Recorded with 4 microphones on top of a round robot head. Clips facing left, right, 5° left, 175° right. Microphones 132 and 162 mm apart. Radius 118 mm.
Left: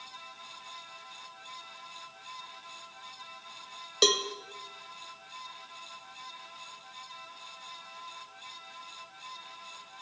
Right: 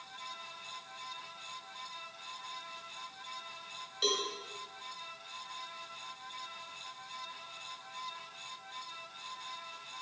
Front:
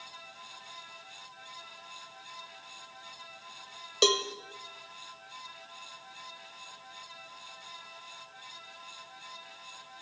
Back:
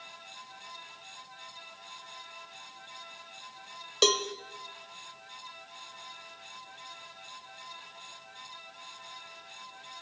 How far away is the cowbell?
About 0.8 m.